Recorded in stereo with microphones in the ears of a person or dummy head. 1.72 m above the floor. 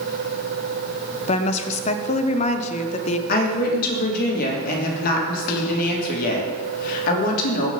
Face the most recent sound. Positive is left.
turn(degrees=55)  # may be behind; listen again after turning